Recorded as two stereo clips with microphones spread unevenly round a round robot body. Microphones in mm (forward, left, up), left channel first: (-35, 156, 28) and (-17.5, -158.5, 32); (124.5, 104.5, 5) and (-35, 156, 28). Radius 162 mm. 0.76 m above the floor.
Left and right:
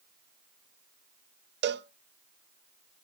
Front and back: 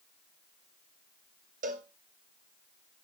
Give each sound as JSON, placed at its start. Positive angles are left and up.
{"t": 1.6, "sound": "a cowbell", "azimuth_deg": -145, "distance_m": 0.5}